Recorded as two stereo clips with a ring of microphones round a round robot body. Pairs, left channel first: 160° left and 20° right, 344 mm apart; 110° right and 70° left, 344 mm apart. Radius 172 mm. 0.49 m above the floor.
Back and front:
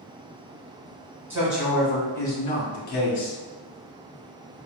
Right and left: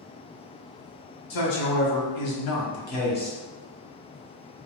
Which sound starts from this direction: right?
A man speaking, at 1.3 s.